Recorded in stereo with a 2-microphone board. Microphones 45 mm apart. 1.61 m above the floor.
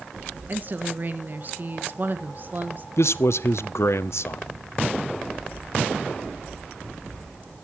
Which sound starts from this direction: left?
A man speaking, at 3.0 s.